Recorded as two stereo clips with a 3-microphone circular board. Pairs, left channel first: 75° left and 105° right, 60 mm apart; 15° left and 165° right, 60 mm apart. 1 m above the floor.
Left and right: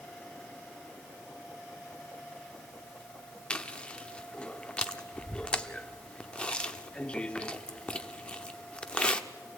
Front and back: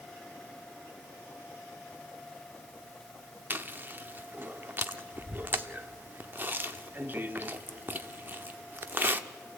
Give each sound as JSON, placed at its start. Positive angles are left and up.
{"t": 3.5, "sound": "chewing", "azimuth_deg": 145, "distance_m": 0.8}